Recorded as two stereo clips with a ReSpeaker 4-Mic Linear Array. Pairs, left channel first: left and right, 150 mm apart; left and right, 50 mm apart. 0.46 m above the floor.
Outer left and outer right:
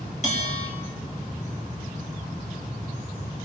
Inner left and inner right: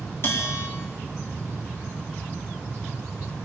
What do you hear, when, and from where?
0.2 s a bell: 50° left (ahead or behind), 4 m